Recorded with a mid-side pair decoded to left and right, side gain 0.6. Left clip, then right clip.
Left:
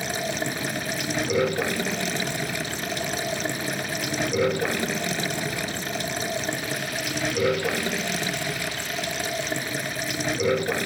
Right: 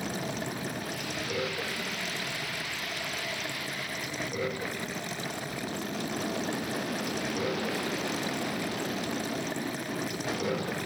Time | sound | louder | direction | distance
0.0 | running water | left 7 dB | 50° left | ?